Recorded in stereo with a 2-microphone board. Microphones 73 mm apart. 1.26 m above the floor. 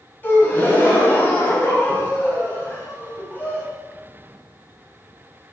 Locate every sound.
0.2 s a gasp: 25° left (ahead or behind), 0.9 m